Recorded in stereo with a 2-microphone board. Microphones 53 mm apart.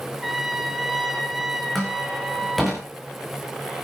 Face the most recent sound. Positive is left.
turn(degrees=5)  # may be behind; listen again after turning